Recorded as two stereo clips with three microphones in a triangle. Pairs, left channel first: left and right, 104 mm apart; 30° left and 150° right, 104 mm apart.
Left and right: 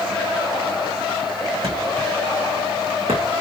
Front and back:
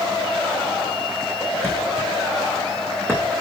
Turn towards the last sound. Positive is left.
turn(degrees=-80)